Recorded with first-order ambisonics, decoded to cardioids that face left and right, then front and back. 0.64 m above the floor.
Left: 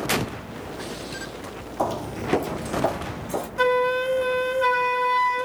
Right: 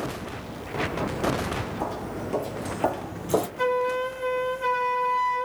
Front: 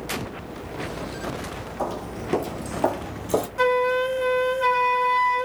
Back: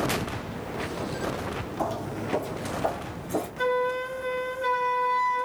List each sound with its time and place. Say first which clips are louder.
1.8 s footsteps: left 4 dB, front 2 dB; 90° left, 0.9 m; by 3.5 s 30° right, 1.0 m
3.6 s a flute: left 9 dB, front 5 dB; 45° left, 0.6 m